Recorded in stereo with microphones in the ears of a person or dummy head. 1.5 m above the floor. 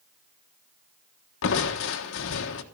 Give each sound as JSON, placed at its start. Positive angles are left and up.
{"t": 1.4, "sound": "crushing", "side_deg": 70, "distance_m": 1.3}